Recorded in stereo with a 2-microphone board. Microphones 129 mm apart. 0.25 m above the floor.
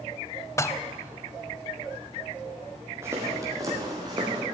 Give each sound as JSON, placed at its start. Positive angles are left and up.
{"t": 0.6, "sound": "dishes clattering", "side_deg": 25, "distance_m": 0.7}
{"t": 3.0, "sound": "footsteps", "side_deg": -20, "distance_m": 6.0}